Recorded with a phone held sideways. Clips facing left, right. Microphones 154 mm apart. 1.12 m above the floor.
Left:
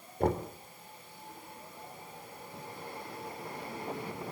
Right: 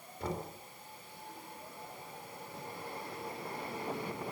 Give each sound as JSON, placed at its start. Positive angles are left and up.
{"t": 0.2, "sound": "knocking", "side_deg": 55, "distance_m": 2.5}